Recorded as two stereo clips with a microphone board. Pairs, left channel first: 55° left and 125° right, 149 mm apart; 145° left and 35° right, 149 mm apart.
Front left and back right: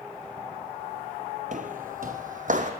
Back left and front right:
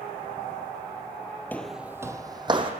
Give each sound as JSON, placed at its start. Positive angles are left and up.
{"t": 1.5, "sound": "footsteps", "azimuth_deg": -140, "distance_m": 0.8}